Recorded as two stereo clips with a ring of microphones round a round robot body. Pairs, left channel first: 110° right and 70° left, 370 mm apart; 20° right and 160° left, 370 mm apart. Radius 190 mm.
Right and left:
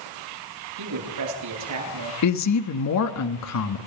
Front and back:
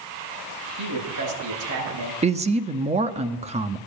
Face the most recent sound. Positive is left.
turn(degrees=-135)